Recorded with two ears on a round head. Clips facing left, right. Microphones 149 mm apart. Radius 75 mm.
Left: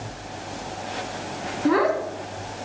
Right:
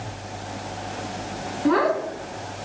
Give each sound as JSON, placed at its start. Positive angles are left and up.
{"t": 1.6, "sound": "a child speaking", "side_deg": 5, "distance_m": 2.5}